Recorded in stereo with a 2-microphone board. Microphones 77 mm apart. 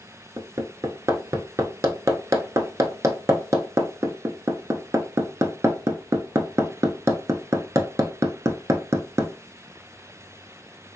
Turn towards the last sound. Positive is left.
turn(degrees=-40)  # may be behind; listen again after turning